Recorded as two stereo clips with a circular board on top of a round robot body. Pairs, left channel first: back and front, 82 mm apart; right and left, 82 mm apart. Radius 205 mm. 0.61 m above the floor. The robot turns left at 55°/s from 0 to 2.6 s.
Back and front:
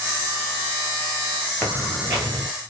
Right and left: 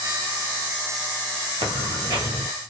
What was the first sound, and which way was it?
Footsteps, 95° left.